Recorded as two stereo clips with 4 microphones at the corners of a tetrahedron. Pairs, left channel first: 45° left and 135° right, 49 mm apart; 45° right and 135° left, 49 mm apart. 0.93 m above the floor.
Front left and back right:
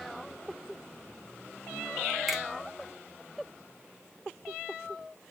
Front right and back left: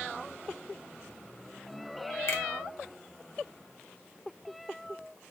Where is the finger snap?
50° right, 1.8 m.